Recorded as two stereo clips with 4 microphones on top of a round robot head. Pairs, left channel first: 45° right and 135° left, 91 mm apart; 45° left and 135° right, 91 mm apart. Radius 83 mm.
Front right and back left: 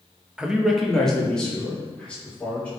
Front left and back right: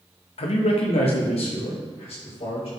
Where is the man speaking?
55° left, 1.0 m; by 2.7 s 35° left, 4 m.